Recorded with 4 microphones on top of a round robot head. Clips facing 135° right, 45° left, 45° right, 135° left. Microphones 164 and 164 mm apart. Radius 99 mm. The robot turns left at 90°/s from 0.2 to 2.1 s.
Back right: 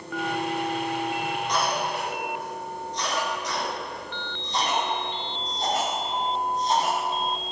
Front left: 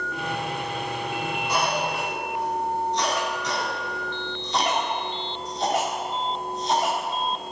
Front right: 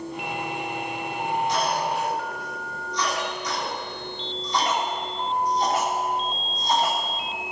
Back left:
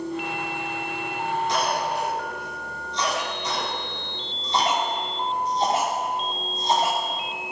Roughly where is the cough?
Behind left.